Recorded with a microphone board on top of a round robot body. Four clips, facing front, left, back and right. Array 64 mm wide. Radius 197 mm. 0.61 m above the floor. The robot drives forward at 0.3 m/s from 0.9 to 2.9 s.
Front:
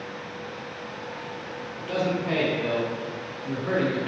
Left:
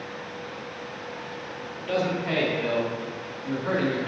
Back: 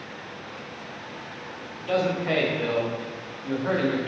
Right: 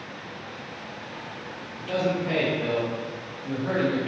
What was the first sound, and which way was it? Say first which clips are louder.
A man speaking: right 1 dB, back 2 dB; 165° left.